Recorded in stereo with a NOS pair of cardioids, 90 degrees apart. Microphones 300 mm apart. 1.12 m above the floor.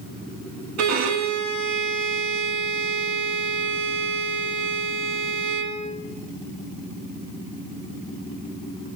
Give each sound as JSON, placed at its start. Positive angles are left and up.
{"t": 0.8, "sound": "a violin", "azimuth_deg": -65, "distance_m": 1.3}